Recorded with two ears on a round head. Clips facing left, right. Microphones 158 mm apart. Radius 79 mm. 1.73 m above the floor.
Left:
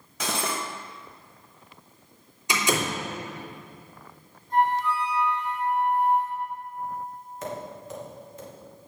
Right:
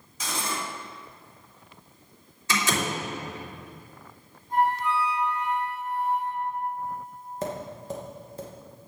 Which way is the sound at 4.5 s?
10° right (ahead or behind).